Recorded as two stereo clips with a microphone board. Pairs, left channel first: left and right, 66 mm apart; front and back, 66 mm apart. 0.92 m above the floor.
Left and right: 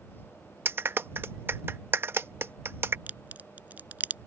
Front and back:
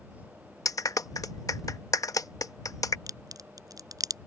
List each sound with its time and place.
0.7 s a clap: 35° right
3.1 s a crack: 155° right